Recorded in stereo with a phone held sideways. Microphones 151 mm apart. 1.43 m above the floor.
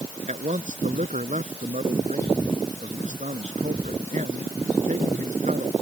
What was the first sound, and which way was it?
A man speaking, 55° right (ahead or behind).